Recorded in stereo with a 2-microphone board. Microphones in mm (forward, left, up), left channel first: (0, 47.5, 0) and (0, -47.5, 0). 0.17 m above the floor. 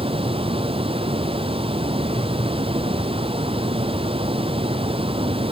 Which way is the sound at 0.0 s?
70° right (ahead or behind).